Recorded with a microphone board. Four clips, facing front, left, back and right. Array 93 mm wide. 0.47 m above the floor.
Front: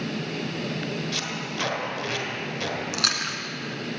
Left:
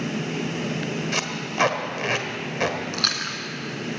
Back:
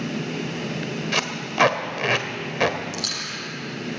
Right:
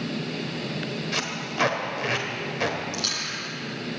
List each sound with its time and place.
1.1 s tape being pulled: 165° left, 1.2 m
2.9 s chewing: 45° left, 2 m